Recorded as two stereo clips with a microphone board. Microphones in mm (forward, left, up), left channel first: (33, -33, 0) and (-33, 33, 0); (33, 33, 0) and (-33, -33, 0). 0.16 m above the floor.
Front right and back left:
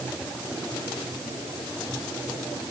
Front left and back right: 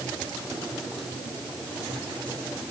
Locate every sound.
Only background noise.